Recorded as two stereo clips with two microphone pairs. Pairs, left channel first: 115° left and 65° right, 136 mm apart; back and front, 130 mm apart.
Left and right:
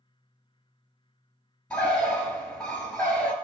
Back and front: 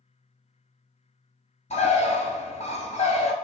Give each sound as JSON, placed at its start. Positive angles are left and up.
{"t": 1.7, "sound": "a bird", "azimuth_deg": -165, "distance_m": 0.8}